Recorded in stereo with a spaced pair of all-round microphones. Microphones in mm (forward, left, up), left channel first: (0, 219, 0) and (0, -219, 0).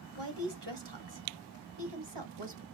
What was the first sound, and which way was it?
A woman speaking, 60° right (ahead or behind).